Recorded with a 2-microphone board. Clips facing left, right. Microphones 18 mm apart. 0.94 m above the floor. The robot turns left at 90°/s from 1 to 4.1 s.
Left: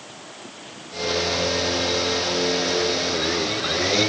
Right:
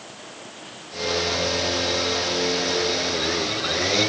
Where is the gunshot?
I don't hear a gunshot.